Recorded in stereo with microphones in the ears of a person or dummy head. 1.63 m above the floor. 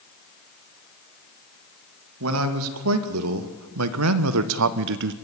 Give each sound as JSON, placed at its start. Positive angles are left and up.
{"t": 2.2, "sound": "a man speaking", "side_deg": -75, "distance_m": 2.5}